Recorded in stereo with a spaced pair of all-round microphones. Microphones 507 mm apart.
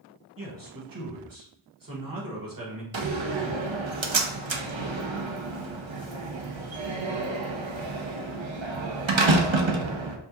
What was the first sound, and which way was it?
A man speaking, 40° right (ahead or behind).